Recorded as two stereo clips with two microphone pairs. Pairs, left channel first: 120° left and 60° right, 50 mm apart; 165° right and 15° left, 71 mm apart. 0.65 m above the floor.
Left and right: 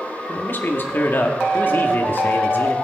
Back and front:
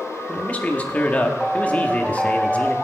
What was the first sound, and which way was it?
A man speaking, 135° left.